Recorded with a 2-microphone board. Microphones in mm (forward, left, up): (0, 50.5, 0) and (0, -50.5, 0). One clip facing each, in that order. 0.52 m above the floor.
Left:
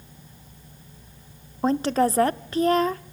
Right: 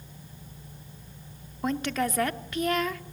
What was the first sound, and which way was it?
A woman speaking, 35° left (ahead or behind).